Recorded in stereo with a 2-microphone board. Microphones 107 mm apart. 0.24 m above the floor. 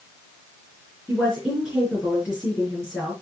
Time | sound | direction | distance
1.1 | a woman speaking | 10° right (ahead or behind) | 4 m